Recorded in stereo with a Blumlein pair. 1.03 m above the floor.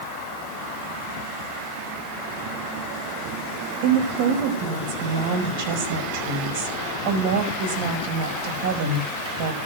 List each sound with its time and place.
3.8 s a woman speaking: 50° right, 5 m